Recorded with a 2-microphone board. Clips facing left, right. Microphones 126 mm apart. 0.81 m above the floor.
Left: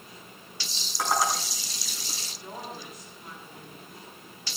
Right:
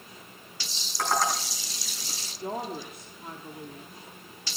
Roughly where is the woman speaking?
Right.